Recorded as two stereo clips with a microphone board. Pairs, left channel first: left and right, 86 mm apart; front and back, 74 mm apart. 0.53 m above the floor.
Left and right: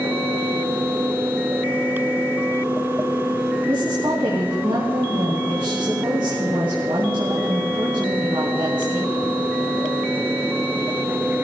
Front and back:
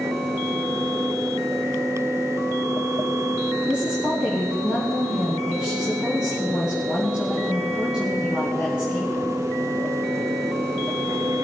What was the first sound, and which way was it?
A woman speaking, 105° right.